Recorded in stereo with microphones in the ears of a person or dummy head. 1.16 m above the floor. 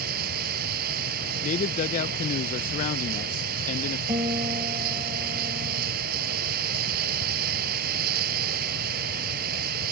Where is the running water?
55° right (ahead or behind).